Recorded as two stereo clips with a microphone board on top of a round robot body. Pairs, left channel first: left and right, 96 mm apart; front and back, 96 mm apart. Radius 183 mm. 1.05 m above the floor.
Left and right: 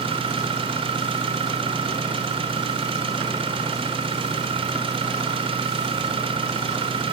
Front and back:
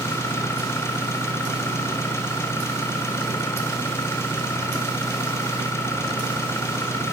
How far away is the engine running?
About 4 m.